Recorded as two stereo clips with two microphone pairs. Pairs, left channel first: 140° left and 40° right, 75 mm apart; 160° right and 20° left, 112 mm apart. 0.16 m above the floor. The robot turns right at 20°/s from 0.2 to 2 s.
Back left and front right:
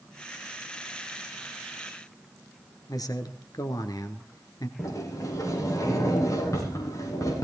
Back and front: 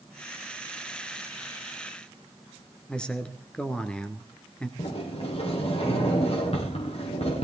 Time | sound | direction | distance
2.9 | a man speaking | 120° left | 2.5 m
4.8 | a sliding door | straight behind | 7.5 m